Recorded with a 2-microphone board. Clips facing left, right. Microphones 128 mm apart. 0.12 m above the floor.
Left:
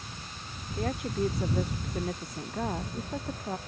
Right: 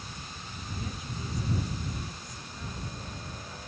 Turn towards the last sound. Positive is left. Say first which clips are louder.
# left 12 dB
turn(degrees=65)  # may be behind; listen again after turning